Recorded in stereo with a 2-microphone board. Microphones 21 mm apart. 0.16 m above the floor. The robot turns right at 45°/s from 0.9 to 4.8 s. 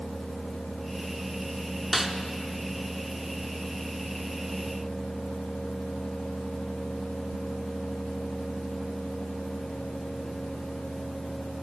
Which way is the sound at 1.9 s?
5° right (ahead or behind).